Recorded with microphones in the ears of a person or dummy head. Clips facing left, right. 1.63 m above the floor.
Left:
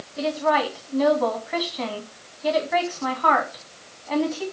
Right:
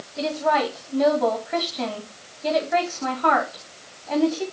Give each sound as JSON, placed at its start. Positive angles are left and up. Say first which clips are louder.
{"t": 0.2, "sound": "a woman speaking", "louder": "even", "side_deg": -5, "distance_m": 1.8}